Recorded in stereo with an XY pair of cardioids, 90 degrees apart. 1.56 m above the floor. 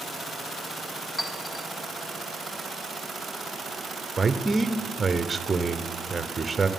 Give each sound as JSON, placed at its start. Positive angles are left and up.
{"t": 1.2, "sound": "a clink", "azimuth_deg": 35, "distance_m": 2.0}
{"t": 4.2, "sound": "a man speaking", "azimuth_deg": -20, "distance_m": 0.8}